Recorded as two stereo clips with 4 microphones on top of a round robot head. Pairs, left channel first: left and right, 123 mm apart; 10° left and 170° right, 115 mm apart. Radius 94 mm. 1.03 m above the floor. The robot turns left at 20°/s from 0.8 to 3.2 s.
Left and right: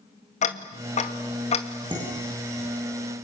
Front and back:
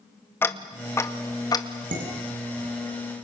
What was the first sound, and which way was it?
Ticking, 80° left.